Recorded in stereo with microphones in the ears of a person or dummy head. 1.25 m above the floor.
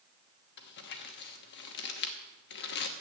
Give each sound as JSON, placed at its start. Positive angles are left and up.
{"t": 0.6, "sound": "crumpling", "side_deg": 60, "distance_m": 1.1}